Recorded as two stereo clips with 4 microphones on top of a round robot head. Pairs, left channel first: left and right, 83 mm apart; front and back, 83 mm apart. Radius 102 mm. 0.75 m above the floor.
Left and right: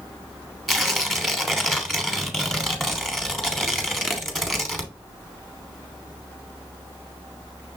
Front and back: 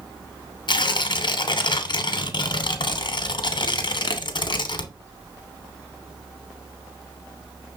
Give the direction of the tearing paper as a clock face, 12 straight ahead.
12 o'clock.